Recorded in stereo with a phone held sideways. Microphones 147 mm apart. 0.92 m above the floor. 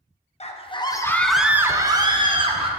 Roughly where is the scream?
Left.